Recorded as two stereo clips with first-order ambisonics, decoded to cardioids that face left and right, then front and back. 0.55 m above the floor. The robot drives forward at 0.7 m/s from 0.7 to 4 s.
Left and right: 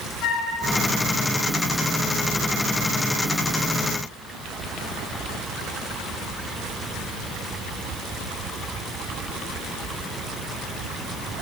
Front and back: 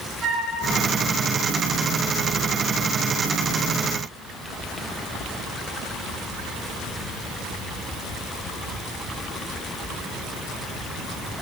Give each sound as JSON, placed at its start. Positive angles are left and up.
{"t": 0.2, "sound": "a flute", "azimuth_deg": 120, "distance_m": 1.8}